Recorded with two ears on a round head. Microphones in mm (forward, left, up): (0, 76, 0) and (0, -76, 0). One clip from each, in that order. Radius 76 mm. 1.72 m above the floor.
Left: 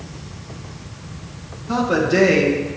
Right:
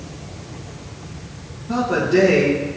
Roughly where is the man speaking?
Left.